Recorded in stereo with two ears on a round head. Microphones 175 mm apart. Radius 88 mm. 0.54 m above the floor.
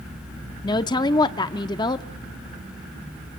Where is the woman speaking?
20° left (ahead or behind), 0.6 m.